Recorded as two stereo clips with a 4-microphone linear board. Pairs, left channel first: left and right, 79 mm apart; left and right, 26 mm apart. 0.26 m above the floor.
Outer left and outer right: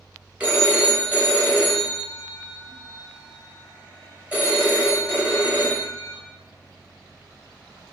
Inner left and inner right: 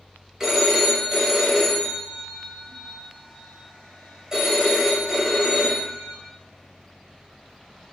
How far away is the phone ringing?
About 0.9 m.